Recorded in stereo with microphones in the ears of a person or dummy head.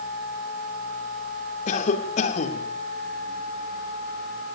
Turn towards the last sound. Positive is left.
turn(degrees=45)  # may be behind; listen again after turning